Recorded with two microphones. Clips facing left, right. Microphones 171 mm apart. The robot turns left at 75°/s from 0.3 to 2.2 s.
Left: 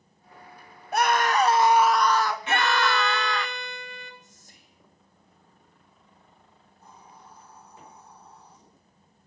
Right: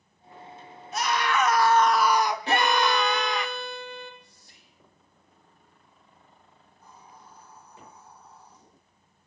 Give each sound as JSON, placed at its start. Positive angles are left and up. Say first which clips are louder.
{"t": 0.9, "sound": "a scream", "louder": "left 4 dB", "azimuth_deg": 75, "distance_m": 0.7}
{"t": 2.5, "sound": "a violin", "louder": "right 3 dB", "side_deg": -35, "distance_m": 1.4}
{"t": 4.2, "sound": "whispering", "louder": "left 2 dB", "side_deg": 45, "distance_m": 1.4}
{"t": 6.8, "sound": "a hiss", "louder": "left 1 dB", "side_deg": 25, "distance_m": 9.0}